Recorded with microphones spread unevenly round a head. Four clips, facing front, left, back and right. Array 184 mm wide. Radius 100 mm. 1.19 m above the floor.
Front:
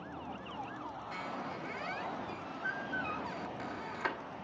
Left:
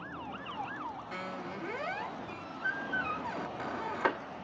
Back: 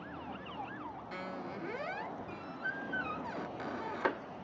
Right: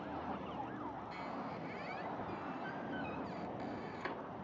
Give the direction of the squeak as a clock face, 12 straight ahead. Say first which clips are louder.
Left 4 dB, front 1 dB; 8 o'clock.